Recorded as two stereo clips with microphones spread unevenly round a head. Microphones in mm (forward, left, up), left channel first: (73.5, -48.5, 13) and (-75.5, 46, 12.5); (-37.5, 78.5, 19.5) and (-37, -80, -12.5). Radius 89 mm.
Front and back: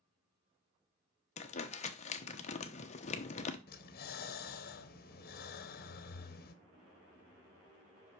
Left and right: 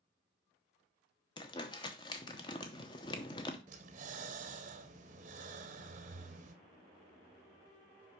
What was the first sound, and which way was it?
Crumpling, 20° left.